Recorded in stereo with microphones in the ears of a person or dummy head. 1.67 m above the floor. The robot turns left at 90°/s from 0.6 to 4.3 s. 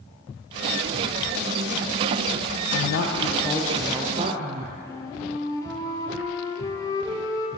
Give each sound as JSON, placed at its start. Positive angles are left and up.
{"t": 2.7, "sound": "a woman speaking", "azimuth_deg": 95, "distance_m": 0.6}
{"t": 4.8, "sound": "a flute", "side_deg": 15, "distance_m": 0.7}